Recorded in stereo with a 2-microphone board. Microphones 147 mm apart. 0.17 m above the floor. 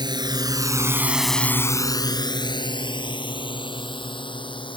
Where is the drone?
30° right (ahead or behind); by 4.8 s 30° left (ahead or behind).